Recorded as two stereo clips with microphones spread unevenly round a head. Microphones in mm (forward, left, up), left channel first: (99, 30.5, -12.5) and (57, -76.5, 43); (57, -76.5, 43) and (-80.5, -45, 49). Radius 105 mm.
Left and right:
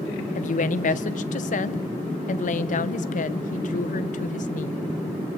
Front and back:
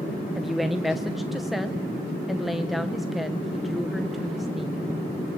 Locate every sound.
0.3 s a woman speaking: 80° left, 0.8 m